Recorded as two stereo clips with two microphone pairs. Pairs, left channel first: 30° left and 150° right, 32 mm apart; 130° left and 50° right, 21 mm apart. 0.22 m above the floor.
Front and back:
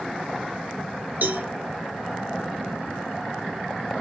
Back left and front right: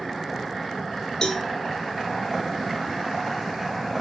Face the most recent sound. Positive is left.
turn(degrees=-170)